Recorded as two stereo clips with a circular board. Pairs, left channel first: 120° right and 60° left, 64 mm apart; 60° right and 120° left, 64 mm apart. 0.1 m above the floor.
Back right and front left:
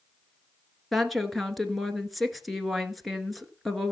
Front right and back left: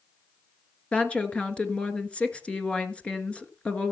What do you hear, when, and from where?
0.9 s a woman speaking: 30° right, 1.3 m